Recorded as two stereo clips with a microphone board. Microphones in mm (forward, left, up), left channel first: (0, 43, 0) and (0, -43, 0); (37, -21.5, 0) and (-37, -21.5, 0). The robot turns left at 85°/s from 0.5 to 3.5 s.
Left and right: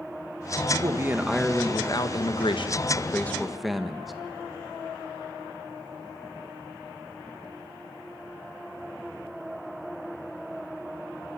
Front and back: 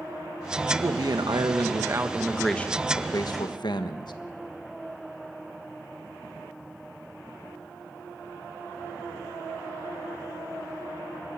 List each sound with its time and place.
0.7 s a man speaking: 120° right, 1.4 m; by 4.1 s straight ahead, 1.4 m